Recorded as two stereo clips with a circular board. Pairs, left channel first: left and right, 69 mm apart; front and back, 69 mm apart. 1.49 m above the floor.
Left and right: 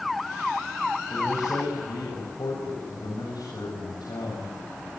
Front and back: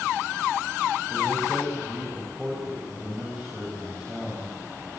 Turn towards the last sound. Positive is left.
turn(degrees=105)